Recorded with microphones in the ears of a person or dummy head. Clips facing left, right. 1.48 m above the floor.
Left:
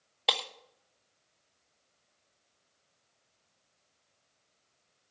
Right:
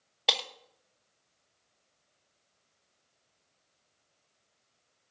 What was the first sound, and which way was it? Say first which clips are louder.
Breaking glass: even; centre (ahead or behind).